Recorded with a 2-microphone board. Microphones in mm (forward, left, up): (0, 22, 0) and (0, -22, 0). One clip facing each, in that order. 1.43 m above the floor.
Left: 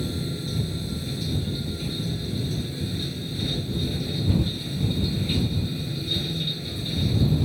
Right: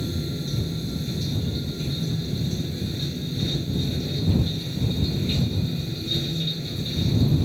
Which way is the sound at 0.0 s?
5° left (ahead or behind).